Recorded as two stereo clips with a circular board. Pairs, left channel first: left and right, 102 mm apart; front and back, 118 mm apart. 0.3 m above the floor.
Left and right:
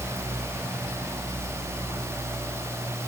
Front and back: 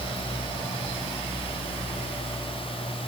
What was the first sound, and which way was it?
Only background noise.